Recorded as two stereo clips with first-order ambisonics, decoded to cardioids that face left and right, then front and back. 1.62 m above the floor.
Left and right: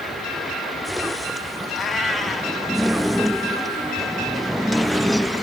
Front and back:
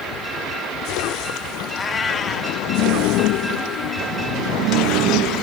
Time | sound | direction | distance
1.7 | a cat meowing | 25° left | 0.8 m